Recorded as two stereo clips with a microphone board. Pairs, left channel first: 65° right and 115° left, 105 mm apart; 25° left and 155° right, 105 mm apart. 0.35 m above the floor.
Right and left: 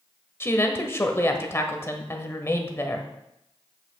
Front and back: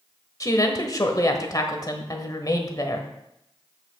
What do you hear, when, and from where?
0.4 s a woman speaking: 15° right, 1.1 m